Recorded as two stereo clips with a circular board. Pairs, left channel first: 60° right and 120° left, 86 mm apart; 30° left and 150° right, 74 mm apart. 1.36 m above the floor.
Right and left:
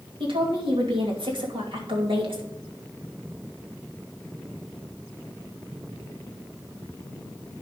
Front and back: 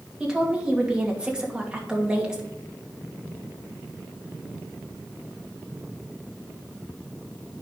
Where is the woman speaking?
130° left, 2.5 m.